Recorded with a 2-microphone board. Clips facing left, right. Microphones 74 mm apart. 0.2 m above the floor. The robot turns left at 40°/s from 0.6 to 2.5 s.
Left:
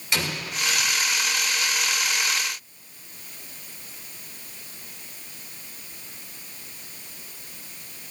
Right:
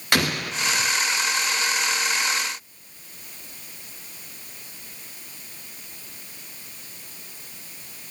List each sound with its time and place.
0.1 s an explosion: 60° right (ahead or behind), 1.5 m; by 0.9 s 65° right (ahead or behind), 1.5 m